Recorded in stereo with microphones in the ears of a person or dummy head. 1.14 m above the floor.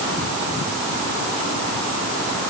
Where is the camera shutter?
I don't hear a camera shutter.